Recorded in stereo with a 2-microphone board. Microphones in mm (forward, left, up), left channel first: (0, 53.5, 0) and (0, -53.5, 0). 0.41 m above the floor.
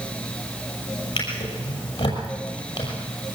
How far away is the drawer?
About 6 m.